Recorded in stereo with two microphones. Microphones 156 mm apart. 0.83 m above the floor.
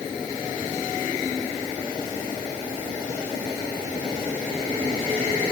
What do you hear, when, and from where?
Only background noise.